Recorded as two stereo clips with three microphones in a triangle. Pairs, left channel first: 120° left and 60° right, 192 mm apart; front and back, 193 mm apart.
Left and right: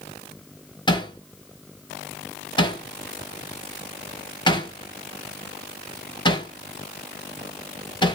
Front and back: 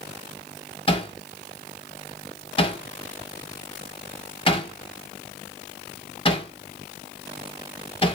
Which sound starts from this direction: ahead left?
Hammering, at 0.9 s.